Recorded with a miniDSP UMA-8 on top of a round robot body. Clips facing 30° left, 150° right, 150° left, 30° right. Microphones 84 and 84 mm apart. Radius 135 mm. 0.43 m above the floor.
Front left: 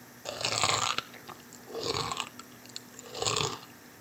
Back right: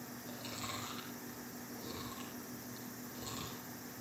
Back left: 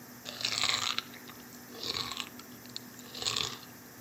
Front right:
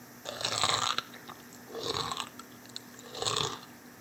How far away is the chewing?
About 0.7 m.